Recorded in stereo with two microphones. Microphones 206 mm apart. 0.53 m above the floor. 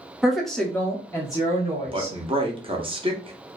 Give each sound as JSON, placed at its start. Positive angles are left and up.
{"t": 0.2, "sound": "a woman speaking", "side_deg": -5, "distance_m": 0.8}
{"t": 1.8, "sound": "a man speaking", "side_deg": -25, "distance_m": 0.7}